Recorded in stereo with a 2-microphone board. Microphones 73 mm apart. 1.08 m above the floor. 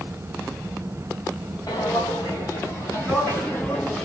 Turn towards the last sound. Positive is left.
turn(degrees=10)  # may be behind; listen again after turning